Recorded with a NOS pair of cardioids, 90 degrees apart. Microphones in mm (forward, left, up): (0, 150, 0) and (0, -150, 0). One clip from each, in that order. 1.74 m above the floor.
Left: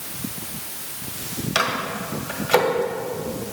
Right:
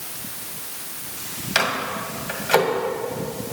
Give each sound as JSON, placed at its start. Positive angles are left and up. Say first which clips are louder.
{"t": 1.6, "sound": "a microwave", "louder": "right 1 dB", "azimuth_deg": 5, "distance_m": 2.0}